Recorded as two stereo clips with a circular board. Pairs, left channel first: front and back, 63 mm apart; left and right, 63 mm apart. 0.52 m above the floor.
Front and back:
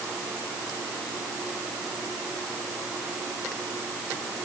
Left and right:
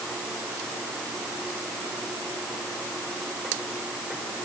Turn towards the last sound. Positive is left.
No sound to turn to.